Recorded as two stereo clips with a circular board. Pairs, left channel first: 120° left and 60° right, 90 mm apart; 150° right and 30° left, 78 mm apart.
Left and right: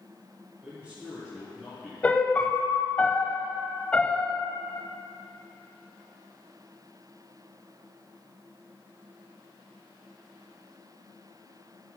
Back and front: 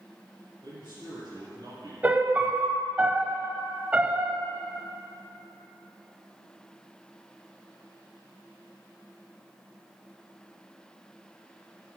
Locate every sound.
0.6 s a man speaking: 20° left, 3 m
2.0 s a piano: 70° left, 0.7 m